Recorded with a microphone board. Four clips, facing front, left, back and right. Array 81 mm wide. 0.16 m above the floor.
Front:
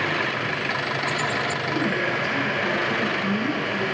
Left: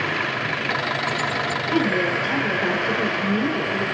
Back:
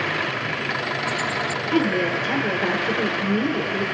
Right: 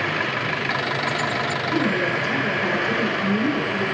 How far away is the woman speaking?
About 2 m.